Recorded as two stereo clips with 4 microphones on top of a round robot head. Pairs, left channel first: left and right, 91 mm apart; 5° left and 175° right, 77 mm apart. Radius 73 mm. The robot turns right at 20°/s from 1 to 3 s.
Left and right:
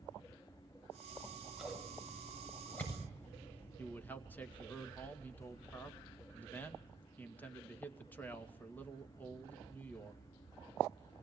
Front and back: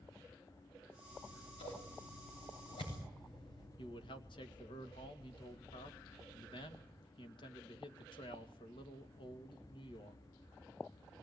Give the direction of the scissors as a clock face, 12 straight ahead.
1 o'clock.